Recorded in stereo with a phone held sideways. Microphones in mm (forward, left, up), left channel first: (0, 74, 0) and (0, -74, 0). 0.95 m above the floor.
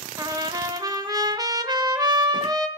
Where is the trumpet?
25° right (ahead or behind), 1.0 m.